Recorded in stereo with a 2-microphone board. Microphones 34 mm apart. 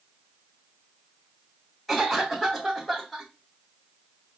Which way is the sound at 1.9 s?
Centre (ahead or behind).